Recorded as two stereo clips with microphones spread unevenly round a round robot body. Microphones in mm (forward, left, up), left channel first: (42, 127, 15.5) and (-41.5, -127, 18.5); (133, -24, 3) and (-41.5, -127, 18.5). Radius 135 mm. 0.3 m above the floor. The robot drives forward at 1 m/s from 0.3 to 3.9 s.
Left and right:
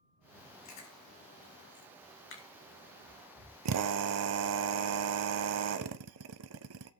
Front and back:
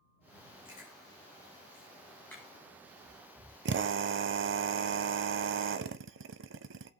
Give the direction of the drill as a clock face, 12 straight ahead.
4 o'clock.